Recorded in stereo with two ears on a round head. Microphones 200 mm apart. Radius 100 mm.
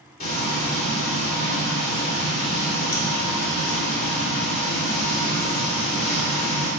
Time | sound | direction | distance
0.2 | frying | 40° left (ahead or behind) | 2.5 m